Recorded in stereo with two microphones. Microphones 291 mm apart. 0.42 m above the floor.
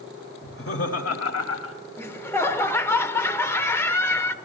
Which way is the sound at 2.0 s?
10° left (ahead or behind).